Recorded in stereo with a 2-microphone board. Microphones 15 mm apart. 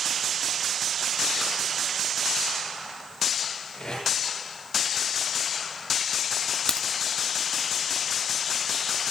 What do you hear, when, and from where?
3.7 s tape being pulled: 80° left, 10 m
6.7 s a crack: 55° left (ahead or behind), 0.9 m